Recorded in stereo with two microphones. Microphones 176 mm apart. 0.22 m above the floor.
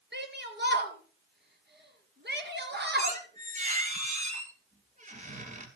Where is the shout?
65° right (ahead or behind), 4 m.